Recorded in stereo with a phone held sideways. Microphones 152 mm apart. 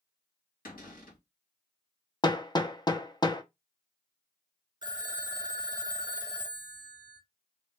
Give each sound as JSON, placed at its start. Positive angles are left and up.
{"t": 0.7, "sound": "a cupboard door", "side_deg": 70, "distance_m": 1.8}
{"t": 2.2, "sound": "hammering", "side_deg": 30, "distance_m": 0.5}
{"t": 4.8, "sound": "a phone ringing", "side_deg": -30, "distance_m": 0.6}